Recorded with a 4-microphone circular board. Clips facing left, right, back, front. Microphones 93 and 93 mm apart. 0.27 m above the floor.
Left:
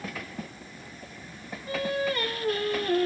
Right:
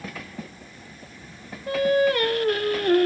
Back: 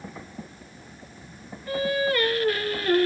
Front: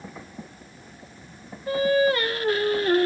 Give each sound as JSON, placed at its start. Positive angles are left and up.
{"t": 1.7, "sound": "singing", "azimuth_deg": -65, "distance_m": 1.0}